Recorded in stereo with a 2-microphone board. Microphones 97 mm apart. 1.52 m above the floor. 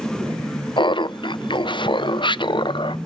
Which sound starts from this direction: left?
Laughter, at 0.8 s.